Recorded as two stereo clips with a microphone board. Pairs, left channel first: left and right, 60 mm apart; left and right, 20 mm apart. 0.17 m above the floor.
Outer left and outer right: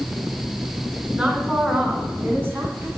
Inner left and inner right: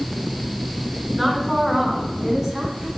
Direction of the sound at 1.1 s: 20° right (ahead or behind).